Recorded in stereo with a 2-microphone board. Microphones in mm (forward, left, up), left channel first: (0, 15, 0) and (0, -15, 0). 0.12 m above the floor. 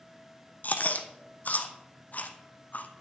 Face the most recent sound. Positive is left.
turn(degrees=55)  # may be behind; listen again after turning